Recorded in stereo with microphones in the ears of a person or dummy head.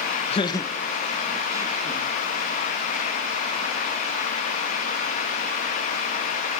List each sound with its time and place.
0.3 s laughter: 35° left (ahead or behind), 1.5 m; by 2.1 s 25° right (ahead or behind), 3 m